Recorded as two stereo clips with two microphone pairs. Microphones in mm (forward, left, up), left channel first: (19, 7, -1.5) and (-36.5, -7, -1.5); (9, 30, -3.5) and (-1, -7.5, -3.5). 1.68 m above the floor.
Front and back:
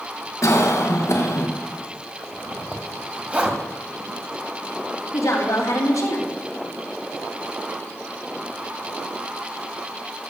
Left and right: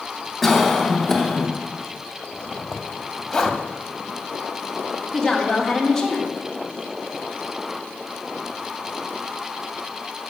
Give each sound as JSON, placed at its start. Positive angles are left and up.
{"t": 0.4, "sound": "a cough", "azimuth_deg": -10, "distance_m": 1.7}
{"t": 2.2, "sound": "a zipper", "azimuth_deg": 145, "distance_m": 1.9}
{"t": 5.1, "sound": "a woman speaking", "azimuth_deg": -5, "distance_m": 3.5}